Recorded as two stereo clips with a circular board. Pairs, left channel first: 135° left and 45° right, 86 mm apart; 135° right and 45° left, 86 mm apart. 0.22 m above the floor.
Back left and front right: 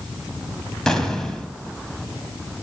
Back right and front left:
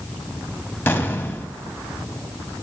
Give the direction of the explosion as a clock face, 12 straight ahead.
5 o'clock.